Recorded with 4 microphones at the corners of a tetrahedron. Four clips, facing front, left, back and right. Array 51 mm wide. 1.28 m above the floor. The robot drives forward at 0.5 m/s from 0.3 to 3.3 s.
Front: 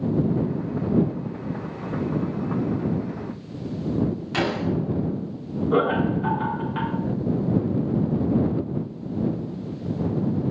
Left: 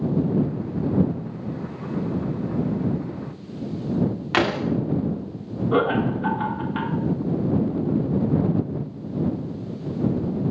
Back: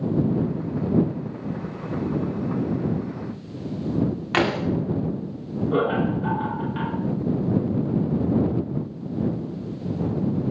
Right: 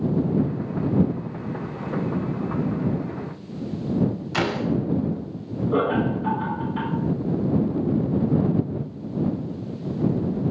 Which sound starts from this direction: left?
Laughter, at 5.7 s.